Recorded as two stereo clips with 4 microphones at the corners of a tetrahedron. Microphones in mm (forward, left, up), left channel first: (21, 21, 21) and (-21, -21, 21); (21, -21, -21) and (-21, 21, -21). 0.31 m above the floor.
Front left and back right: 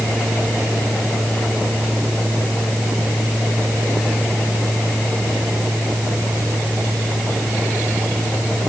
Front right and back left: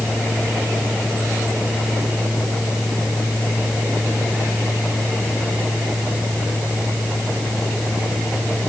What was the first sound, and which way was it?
Only background noise.